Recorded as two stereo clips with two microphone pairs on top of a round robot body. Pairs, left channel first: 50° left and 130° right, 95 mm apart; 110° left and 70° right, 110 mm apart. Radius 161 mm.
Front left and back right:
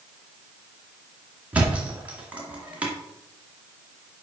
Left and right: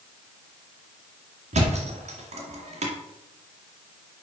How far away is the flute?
I don't hear a flute.